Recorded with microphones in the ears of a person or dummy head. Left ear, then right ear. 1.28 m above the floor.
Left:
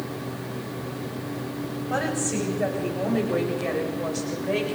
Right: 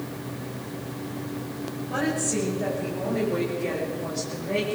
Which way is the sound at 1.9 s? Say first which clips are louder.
Even; 40° left (ahead or behind).